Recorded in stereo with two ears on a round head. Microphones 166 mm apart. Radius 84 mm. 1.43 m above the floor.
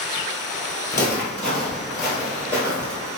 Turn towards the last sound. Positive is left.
turn(degrees=-20)  # may be behind; listen again after turning